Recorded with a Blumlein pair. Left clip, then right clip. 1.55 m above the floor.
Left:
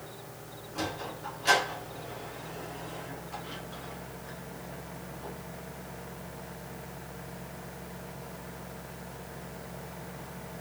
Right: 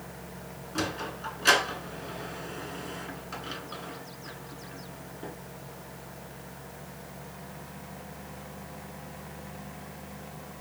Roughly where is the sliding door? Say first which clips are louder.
Right 3 dB; ahead right.